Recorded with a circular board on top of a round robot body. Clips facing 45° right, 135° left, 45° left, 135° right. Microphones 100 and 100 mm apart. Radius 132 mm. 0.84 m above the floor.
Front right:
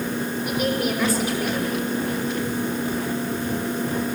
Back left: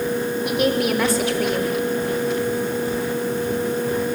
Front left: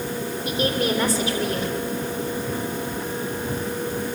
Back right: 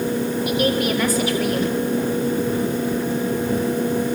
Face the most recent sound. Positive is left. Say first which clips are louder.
# back left 4 dB, back right 1 dB
turn(degrees=105)